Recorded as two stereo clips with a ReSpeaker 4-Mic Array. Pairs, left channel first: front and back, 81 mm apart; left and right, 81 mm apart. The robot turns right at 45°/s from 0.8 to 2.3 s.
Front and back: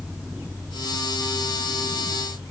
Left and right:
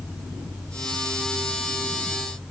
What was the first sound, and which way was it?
Only background noise.